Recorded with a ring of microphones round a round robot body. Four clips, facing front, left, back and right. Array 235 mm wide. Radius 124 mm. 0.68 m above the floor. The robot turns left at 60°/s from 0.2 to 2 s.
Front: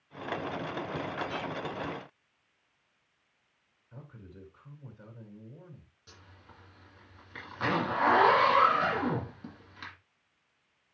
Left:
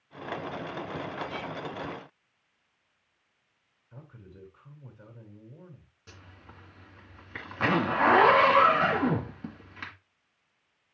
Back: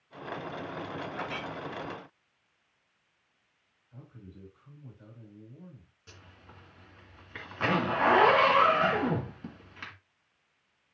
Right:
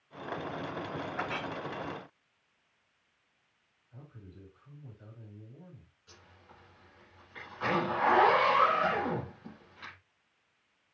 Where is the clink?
95° right, 3 m; by 1.5 s 115° right, 3 m.